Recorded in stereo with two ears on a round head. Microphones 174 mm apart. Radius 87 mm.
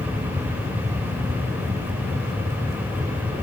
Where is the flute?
No flute in this recording.